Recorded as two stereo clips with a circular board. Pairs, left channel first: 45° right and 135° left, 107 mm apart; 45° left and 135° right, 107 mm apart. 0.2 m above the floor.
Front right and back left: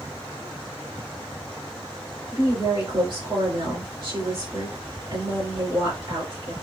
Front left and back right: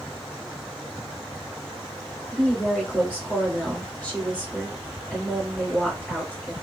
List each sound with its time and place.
2.3 s a woman speaking: 115° left, 2.5 m